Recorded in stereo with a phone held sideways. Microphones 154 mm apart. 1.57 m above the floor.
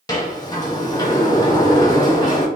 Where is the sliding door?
25° left (ahead or behind), 1.0 m.